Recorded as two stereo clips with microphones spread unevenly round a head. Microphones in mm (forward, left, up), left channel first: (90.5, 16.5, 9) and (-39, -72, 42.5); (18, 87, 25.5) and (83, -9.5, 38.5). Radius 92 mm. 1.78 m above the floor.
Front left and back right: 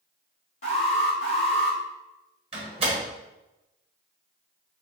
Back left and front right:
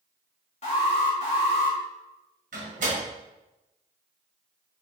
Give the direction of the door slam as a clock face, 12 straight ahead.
3 o'clock.